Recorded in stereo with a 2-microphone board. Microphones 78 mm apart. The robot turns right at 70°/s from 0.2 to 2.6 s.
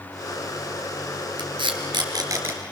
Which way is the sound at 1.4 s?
70° right (ahead or behind).